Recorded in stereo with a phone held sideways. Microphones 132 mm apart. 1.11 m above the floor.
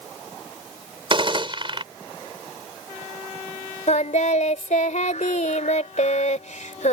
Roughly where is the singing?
Left.